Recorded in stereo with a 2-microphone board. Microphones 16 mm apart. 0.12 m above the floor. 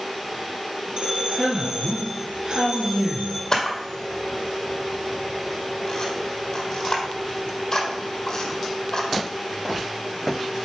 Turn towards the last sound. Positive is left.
turn(degrees=45)  # may be behind; listen again after turning